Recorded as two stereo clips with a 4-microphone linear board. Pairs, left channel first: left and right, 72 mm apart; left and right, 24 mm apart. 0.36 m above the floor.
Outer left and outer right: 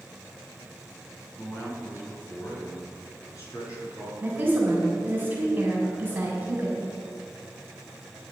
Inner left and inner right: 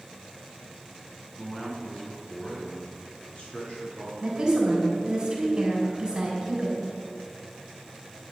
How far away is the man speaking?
About 4 m.